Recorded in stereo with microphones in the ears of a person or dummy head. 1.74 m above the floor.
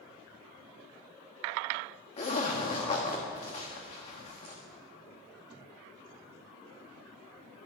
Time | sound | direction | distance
2.2 | a zipper | 30° left (ahead or behind) | 1.3 m